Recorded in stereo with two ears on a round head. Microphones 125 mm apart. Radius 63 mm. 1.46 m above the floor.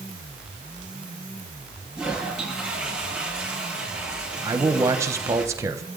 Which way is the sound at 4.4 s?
20° right (ahead or behind).